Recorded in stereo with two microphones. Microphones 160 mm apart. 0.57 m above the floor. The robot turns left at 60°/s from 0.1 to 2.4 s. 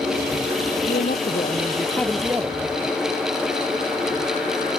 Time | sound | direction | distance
0.9 | a man speaking | 75° left | ?